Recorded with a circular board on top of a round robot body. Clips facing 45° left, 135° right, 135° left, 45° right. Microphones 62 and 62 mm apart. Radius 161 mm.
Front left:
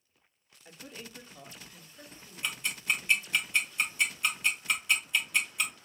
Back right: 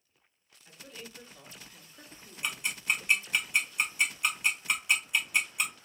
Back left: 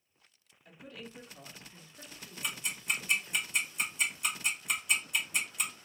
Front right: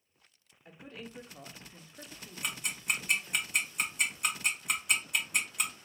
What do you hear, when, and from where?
0.7 s a woman speaking: straight ahead, 1.5 m; by 3.4 s 140° right, 1.7 m
2.4 s ticking: 60° right, 2.5 m